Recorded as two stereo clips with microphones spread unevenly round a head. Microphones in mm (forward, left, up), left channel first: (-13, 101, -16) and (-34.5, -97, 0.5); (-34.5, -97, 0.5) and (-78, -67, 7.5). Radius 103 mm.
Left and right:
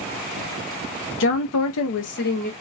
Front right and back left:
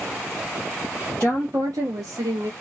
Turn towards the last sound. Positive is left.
turn(degrees=130)